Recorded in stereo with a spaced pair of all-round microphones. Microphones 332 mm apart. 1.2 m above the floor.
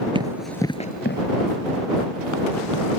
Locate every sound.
0.1 s running footsteps: 15° right (ahead or behind); by 2.9 s 70° left (ahead or behind)